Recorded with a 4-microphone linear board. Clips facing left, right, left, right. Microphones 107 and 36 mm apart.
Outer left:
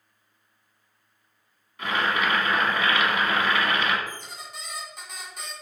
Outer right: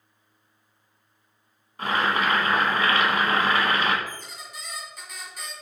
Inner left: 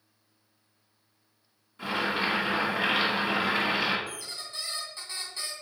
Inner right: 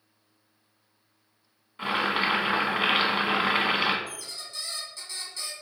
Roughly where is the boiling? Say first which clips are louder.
Outer right 2 dB, inner right 3 dB; right.